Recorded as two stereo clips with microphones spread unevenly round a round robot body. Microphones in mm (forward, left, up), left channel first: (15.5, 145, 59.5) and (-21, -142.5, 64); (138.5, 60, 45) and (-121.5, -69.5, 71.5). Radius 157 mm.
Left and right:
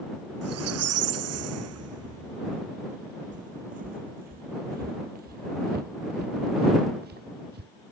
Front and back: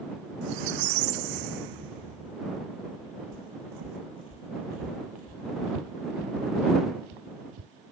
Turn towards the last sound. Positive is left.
turn(degrees=-155)